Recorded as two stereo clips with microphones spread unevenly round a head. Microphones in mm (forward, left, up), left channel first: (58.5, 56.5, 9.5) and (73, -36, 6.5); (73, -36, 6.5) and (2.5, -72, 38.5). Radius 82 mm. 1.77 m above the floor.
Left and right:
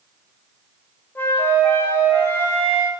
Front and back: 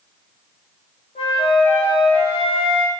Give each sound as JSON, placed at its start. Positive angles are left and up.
{"t": 1.1, "sound": "a flute", "azimuth_deg": 30, "distance_m": 0.7}